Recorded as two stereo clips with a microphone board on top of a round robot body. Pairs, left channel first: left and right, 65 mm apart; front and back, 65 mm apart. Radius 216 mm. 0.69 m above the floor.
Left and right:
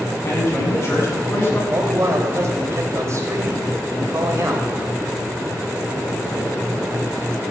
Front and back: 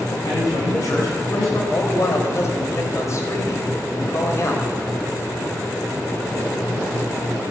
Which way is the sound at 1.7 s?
45° right.